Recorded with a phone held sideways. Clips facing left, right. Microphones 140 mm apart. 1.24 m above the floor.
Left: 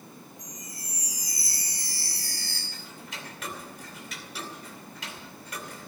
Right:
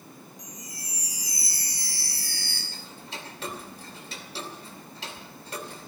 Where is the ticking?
30° right (ahead or behind), 2.5 m.